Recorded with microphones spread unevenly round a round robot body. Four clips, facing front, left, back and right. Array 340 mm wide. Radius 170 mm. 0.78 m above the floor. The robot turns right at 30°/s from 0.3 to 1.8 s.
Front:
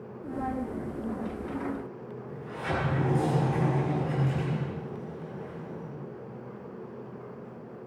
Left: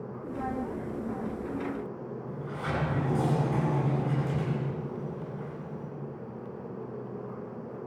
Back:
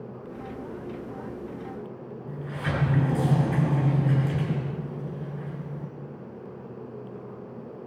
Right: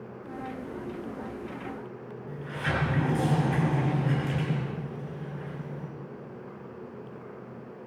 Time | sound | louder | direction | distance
2.3 | a sliding door | right 3 dB, back 2 dB | 175° right | 5 m